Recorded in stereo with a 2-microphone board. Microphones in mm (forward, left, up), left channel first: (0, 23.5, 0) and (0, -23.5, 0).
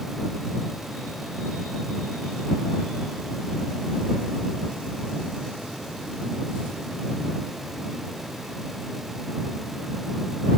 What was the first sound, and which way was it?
Only background noise.